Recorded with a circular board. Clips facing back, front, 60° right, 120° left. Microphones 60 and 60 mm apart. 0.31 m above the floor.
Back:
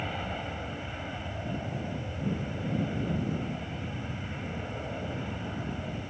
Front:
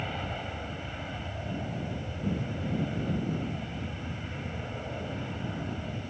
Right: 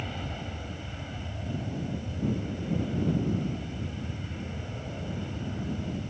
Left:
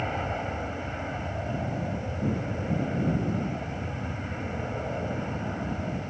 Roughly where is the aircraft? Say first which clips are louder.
Back 1 dB, left 7 dB; left.